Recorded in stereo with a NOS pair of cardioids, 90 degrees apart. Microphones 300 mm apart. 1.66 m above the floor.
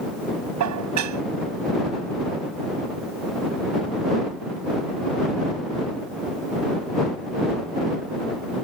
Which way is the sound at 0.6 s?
70° right.